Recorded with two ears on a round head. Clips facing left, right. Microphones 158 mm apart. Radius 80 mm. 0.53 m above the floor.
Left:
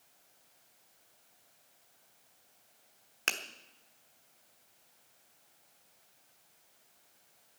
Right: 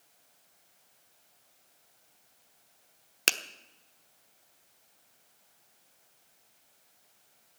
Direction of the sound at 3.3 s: 45° right (ahead or behind).